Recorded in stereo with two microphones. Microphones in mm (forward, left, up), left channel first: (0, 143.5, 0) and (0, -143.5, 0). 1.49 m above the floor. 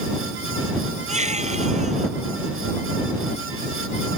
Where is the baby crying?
25° right (ahead or behind).